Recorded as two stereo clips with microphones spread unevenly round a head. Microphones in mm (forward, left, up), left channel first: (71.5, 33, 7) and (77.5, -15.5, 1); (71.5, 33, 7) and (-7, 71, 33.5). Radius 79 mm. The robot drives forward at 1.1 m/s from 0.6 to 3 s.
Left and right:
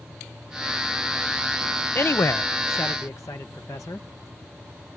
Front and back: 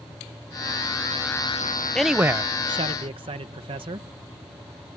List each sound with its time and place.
1.9 s a man speaking: 65° left; by 4.1 s 150° left